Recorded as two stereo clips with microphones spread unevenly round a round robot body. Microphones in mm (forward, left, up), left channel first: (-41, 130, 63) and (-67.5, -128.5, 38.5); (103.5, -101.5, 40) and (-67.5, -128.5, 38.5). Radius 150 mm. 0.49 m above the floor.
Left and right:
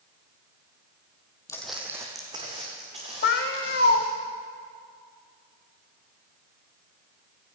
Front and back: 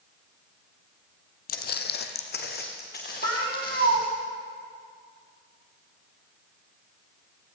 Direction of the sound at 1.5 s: 15° left.